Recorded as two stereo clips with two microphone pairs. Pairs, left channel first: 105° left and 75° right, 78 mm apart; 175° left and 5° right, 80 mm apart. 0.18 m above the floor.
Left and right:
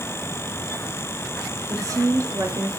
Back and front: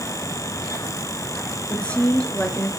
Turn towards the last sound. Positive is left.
turn(degrees=-110)